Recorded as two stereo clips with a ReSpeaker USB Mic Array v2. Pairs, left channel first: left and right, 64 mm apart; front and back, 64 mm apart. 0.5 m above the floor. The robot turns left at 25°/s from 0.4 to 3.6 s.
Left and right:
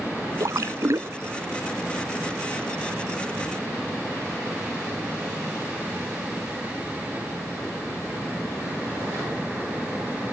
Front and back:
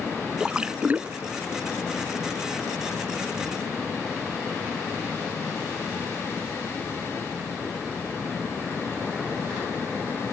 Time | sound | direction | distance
0.4 | a splash | 105° right | ?